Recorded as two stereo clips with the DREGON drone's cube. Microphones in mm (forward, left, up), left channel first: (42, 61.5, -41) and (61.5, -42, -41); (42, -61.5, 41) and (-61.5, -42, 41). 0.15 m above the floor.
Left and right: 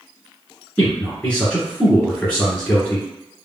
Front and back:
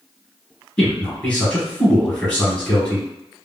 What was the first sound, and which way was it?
A man speaking, 50° left.